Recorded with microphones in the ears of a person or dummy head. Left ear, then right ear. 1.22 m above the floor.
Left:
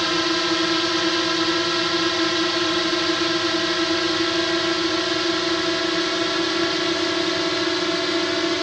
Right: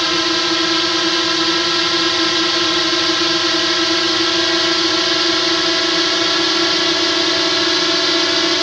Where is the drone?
10° right (ahead or behind); by 8.6 s 25° right (ahead or behind).